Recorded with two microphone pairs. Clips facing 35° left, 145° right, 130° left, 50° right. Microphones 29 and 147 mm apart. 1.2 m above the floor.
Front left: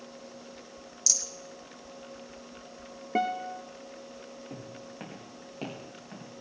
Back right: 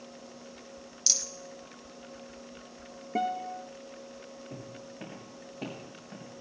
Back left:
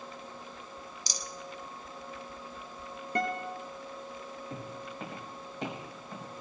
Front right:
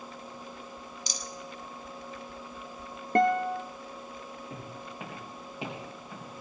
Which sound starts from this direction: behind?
A rattle, at 1.1 s.